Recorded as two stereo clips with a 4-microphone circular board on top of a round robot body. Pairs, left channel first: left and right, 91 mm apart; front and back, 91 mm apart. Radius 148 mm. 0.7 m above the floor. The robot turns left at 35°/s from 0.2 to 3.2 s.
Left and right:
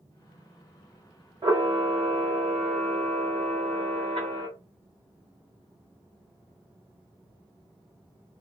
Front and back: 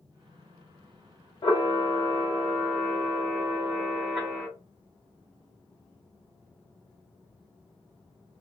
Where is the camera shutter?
40° right, 0.8 m; by 4.5 s 105° right, 0.8 m.